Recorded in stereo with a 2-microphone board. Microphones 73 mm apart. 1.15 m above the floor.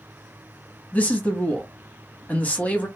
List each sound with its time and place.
0.9 s a man speaking: 20° left (ahead or behind), 1.2 m